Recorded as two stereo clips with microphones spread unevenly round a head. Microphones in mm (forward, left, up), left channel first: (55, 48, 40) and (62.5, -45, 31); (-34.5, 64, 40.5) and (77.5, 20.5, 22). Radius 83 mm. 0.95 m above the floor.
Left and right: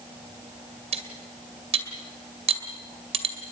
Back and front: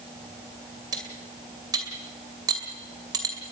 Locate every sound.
0.9 s cutlery clinking: 90° right, 2 m